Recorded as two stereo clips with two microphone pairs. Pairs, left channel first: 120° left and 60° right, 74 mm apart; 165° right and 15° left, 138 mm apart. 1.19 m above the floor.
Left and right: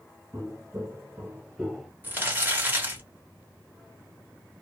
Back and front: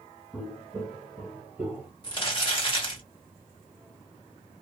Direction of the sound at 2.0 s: 120° right.